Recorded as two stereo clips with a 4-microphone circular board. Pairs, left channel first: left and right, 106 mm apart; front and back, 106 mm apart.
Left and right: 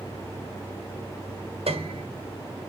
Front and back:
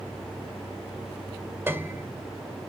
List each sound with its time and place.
1.7 s a piano: 110° right, 1.8 m